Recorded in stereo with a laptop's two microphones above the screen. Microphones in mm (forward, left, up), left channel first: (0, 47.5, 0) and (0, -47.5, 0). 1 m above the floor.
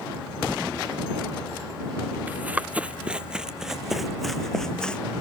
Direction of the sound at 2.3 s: 20° right (ahead or behind).